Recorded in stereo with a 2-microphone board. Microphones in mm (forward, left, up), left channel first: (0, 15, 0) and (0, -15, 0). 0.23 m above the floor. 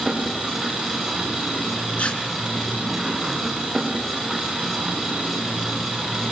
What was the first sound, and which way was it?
An engine running, 5° right (ahead or behind).